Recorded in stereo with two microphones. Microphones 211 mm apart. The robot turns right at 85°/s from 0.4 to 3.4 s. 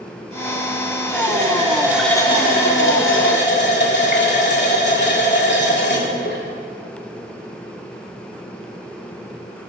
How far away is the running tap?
About 1.9 m.